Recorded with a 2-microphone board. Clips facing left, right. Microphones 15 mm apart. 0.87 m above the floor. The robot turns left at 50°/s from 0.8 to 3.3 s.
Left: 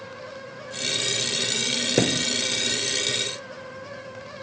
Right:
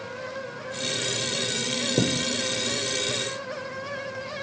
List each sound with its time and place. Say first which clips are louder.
2.0 s a thud: left 3 dB; 55° left (ahead or behind); by 2.3 s 50° left (ahead or behind)